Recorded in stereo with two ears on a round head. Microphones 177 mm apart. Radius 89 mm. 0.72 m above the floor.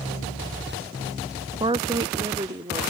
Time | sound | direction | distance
1.6 | a woman speaking | 20° right (ahead or behind) | ?